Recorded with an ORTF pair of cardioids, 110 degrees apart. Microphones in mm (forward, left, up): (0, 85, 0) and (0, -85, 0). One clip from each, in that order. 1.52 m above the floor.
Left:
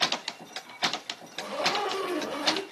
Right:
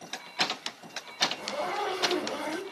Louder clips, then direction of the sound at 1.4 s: Left 3 dB; 10° left.